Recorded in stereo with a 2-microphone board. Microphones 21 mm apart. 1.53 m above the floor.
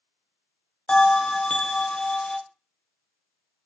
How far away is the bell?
About 0.7 m.